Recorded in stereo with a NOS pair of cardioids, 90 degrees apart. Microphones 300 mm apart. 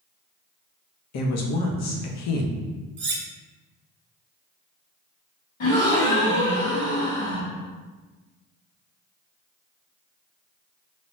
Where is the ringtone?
No ringtone in this recording.